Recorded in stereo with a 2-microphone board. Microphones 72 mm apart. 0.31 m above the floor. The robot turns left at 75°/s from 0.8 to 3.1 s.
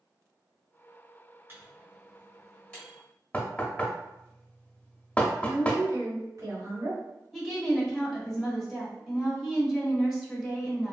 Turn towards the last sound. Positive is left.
turn(degrees=0)  # may be behind; listen again after turning